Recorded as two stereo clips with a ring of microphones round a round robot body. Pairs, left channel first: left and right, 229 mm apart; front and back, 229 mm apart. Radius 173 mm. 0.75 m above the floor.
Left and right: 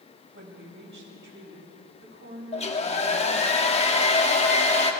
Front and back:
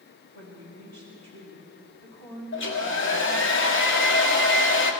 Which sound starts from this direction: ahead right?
A woman speaking, at 0.3 s.